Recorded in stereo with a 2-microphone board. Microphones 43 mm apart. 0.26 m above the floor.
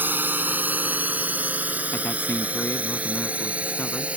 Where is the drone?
50° right (ahead or behind); by 4.2 s 30° right (ahead or behind).